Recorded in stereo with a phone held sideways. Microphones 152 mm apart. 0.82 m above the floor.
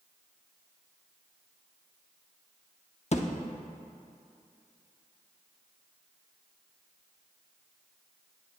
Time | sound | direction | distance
3.1 | a thud | 50° left (ahead or behind) | 0.6 m